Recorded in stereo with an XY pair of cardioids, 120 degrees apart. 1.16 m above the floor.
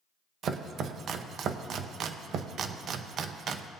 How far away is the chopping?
About 0.6 m.